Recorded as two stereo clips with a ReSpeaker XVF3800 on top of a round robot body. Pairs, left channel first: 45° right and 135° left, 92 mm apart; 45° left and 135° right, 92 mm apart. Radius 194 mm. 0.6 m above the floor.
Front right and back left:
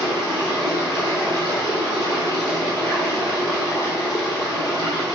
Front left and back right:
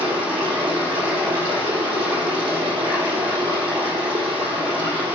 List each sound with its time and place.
0.0 s running water: 105° right, 2.5 m